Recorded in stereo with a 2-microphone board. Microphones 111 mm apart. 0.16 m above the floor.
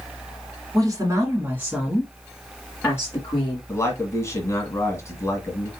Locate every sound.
0.7 s a woman speaking: 35° right (ahead or behind), 1.5 m; by 3.6 s 35° left (ahead or behind), 1.7 m
3.7 s a man speaking: 25° left (ahead or behind), 1.8 m